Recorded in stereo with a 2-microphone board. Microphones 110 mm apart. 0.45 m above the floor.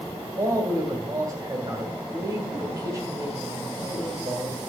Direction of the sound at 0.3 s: 35° right (ahead or behind).